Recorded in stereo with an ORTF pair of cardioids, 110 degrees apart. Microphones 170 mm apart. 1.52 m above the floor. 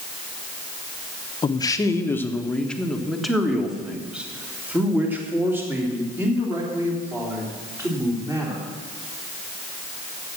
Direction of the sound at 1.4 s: 25° left.